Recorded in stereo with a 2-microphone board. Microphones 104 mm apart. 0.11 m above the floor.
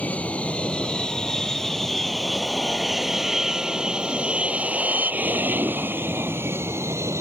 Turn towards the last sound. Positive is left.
turn(degrees=-30)  # may be behind; listen again after turning